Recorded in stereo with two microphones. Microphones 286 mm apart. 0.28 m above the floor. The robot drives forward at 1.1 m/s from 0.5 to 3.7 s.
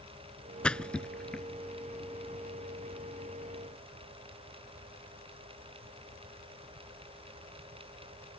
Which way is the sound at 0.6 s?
5° left (ahead or behind).